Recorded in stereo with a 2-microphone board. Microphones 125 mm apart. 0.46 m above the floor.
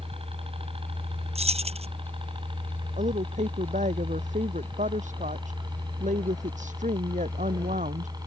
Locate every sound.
0.0 s a helicopter: 50° right (ahead or behind); by 8.3 s 35° right (ahead or behind)
1.4 s keys jangling: 55° right (ahead or behind)
3.0 s a woman speaking: 85° right